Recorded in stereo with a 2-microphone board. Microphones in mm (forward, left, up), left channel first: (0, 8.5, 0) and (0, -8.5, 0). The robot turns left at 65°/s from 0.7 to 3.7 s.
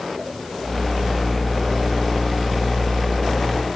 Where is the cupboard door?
No cupboard door in this recording.